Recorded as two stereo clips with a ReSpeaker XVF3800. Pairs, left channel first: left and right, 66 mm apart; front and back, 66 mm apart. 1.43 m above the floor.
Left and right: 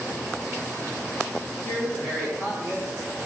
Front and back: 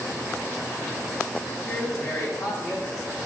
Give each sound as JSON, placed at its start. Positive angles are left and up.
{"t": 1.6, "sound": "a woman speaking", "azimuth_deg": 50, "distance_m": 0.7}